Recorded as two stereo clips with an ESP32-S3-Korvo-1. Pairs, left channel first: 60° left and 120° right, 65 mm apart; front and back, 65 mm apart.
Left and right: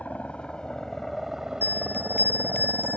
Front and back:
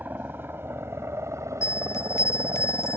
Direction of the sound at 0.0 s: 125° left.